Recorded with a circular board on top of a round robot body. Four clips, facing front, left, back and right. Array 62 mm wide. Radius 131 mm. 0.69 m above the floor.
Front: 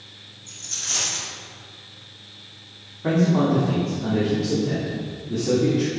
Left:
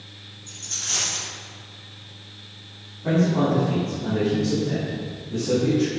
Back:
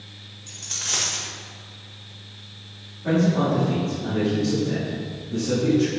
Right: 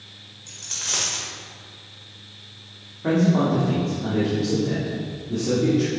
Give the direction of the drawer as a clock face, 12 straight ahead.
I don't hear a drawer.